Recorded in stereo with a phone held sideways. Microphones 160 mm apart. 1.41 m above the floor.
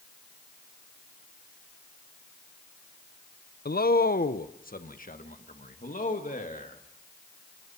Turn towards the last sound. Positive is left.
turn(degrees=60)  # may be behind; listen again after turning